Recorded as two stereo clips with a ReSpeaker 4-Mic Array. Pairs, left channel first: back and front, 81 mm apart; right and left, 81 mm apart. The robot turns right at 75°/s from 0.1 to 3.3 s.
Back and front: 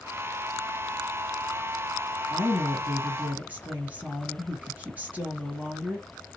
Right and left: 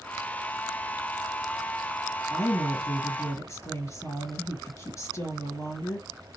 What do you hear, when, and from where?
2.3 s a woman speaking: 135° right, 1.8 m; by 6.1 s 60° right, 1.8 m